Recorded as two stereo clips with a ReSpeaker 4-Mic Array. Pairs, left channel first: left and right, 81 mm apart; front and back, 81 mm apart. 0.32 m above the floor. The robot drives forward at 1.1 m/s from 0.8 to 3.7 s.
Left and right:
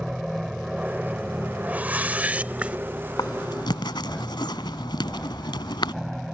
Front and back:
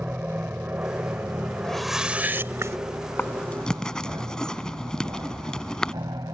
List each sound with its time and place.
0.0 s an aircraft: 165° right; by 6.3 s straight behind
1.6 s a whoosh: 65° right; by 2.8 s 160° right
3.2 s writing: 60° left; by 5.9 s 80° left